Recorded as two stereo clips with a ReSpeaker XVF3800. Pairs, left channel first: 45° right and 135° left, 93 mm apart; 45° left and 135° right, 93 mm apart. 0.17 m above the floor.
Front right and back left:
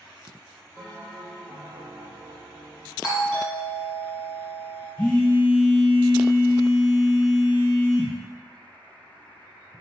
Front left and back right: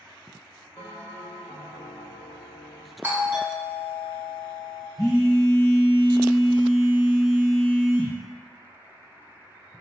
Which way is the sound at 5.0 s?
35° left.